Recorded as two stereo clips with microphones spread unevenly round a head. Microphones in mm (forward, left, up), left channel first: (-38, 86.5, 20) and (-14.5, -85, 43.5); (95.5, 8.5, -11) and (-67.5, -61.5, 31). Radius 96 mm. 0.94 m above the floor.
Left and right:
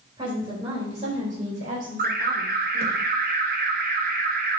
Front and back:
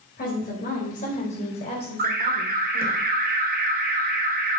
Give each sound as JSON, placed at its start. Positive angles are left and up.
{"t": 0.2, "sound": "a woman speaking", "azimuth_deg": -15, "distance_m": 4.0}
{"t": 2.0, "sound": "an alarm", "azimuth_deg": -115, "distance_m": 1.6}